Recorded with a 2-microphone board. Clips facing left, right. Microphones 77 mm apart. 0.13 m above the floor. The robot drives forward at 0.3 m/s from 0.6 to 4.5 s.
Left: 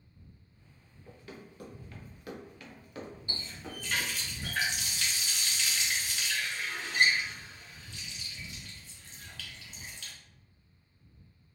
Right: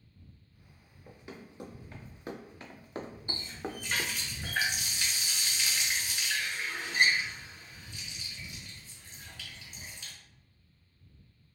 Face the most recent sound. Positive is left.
turn(degrees=-15)  # may be behind; listen again after turning